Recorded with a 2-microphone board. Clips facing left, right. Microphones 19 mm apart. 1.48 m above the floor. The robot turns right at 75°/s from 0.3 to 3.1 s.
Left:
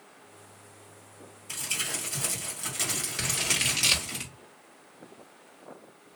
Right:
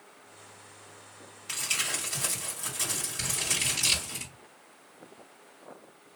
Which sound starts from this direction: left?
Scissors, at 3.2 s.